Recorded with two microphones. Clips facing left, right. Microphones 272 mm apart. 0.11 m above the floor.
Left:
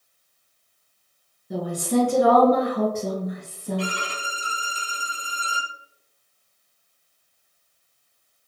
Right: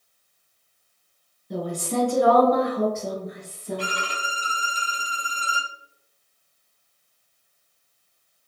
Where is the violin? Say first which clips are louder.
Left 3 dB; 25° left (ahead or behind), 1.8 m.